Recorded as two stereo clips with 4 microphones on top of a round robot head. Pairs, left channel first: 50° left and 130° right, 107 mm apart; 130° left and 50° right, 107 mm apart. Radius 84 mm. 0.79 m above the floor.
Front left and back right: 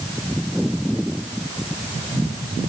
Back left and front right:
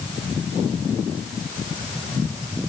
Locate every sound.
Only background noise.